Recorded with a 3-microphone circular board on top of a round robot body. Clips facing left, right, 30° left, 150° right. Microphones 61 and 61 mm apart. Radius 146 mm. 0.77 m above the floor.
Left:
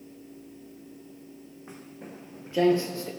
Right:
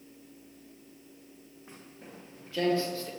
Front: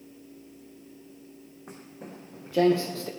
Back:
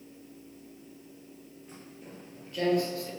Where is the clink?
No clink in this recording.